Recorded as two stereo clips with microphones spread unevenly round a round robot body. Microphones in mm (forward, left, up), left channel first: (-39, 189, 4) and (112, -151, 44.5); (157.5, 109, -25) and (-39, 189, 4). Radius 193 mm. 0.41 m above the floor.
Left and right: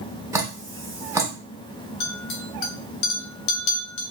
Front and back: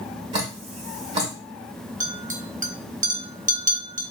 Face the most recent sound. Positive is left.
turn(degrees=105)